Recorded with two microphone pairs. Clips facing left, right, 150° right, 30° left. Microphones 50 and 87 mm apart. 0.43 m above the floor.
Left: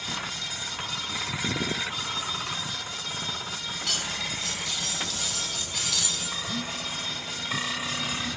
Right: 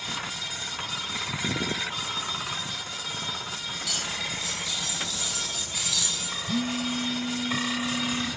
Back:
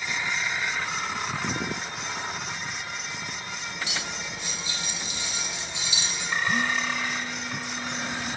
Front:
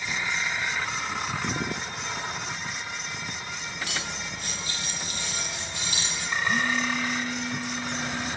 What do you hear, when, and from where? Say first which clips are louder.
3.9 s cutlery clinking: left 1 dB, even; 65° left, 7.5 m
6.5 s a phone buzzing: right 5 dB, front 1 dB; 70° right, 4.5 m